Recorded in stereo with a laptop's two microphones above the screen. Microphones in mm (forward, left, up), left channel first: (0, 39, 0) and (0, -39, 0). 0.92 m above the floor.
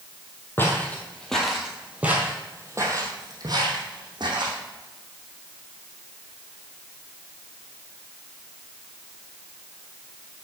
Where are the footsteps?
25° left (ahead or behind), 1.5 m; by 4.6 s 65° right (ahead or behind), 2.5 m.